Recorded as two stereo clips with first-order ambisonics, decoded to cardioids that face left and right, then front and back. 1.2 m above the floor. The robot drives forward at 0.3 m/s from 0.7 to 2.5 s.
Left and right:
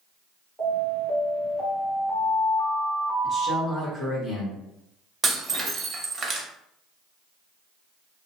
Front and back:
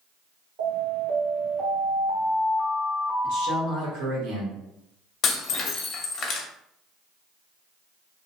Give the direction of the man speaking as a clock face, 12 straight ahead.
6 o'clock.